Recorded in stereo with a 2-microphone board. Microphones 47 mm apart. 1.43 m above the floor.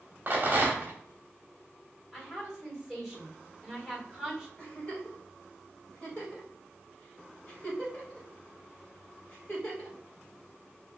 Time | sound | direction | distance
0.3 | a rattle | 40° right (ahead or behind) | 1.2 m
2.1 | a woman speaking | 5° left (ahead or behind) | 2 m
4.6 | a giggle | 30° left (ahead or behind) | 2 m